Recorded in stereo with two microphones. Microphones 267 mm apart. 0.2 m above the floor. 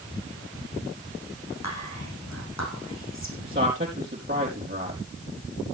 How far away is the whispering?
About 8 m.